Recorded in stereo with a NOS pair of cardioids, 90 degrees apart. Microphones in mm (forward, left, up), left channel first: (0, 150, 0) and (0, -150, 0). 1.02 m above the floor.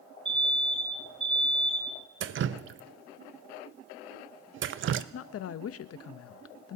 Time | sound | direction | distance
0.2 | an alarm | 20° right | 5 m
2.2 | dripping | 45° right | 0.6 m
5.1 | a woman speaking | 55° left | 0.8 m